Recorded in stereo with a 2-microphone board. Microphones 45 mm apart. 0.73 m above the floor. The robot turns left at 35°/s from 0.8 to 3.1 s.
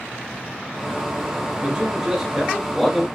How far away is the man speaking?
About 0.8 m.